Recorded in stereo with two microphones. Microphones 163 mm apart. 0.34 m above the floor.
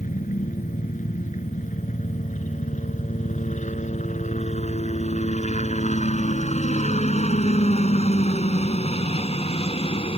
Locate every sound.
0.0 s a helicopter: 50° left (ahead or behind); by 10.2 s 35° left (ahead or behind)